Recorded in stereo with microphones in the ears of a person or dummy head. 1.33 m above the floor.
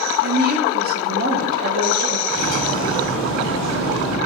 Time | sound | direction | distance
0.2 | a woman speaking | 55° right (ahead or behind) | 2 m
2.3 | cutlery clinking | 70° right (ahead or behind) | 5.5 m